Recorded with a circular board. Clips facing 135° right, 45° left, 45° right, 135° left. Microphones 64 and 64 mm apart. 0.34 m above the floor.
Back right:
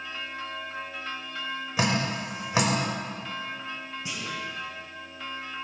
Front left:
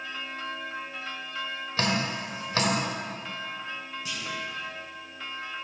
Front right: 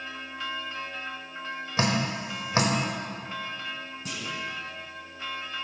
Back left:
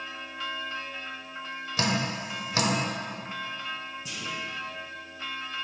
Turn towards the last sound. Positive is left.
turn(degrees=-70)